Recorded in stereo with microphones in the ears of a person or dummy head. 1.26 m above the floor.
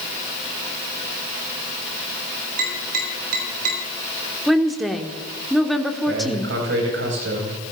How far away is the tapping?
About 9 m.